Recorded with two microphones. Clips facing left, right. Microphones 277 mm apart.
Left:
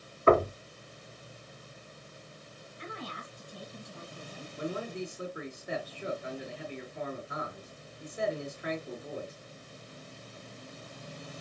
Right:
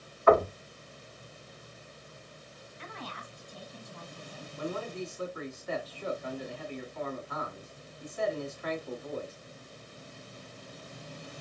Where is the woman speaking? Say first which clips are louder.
Left 3 dB; 10° left (ahead or behind), 1.9 m.